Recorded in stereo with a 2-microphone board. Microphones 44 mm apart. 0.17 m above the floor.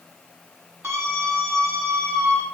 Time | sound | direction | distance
0.8 | a scream | 70° right (ahead or behind) | 6.5 m